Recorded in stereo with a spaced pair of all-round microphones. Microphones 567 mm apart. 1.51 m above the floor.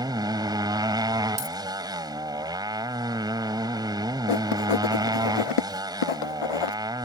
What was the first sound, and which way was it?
A motorcycle, 5° right (ahead or behind).